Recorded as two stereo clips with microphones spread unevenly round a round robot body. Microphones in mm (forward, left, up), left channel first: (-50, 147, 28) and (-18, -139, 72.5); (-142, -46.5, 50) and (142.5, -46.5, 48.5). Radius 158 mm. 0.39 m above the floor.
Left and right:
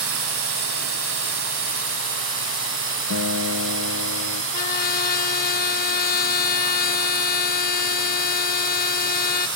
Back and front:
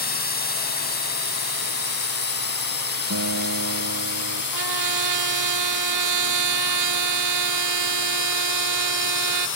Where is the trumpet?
35° left.